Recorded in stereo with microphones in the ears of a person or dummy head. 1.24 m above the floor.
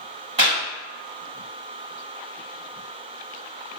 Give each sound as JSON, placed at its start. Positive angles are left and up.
{"t": 0.4, "sound": "a clap", "side_deg": -30, "distance_m": 2.0}